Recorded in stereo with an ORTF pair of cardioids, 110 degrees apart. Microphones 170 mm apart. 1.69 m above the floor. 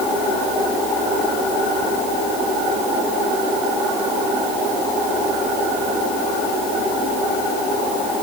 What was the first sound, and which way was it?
Only background noise.